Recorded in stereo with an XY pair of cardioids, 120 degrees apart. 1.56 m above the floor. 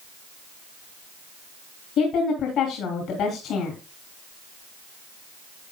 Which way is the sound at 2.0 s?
70° left.